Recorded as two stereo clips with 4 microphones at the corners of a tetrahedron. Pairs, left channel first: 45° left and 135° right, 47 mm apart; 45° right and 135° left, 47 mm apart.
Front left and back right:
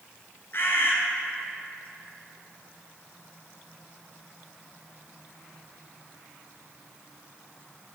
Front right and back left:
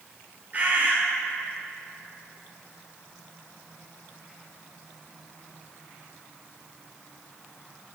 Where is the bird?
80° left, 0.9 m.